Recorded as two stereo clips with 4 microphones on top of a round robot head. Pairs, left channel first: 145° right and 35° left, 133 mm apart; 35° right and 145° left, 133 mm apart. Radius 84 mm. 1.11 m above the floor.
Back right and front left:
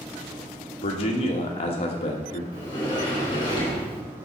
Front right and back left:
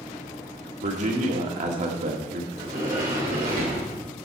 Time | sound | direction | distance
0.8 | a man speaking | 175° left | 1.8 m
2.5 | a sliding door | 160° left | 3.5 m